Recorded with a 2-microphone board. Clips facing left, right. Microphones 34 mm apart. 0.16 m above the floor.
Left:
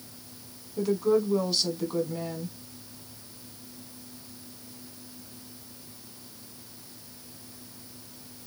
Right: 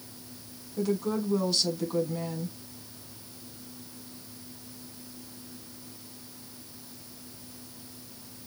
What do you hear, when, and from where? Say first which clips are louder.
0.8 s a woman speaking: left 5 dB; 5° left (ahead or behind), 1.1 m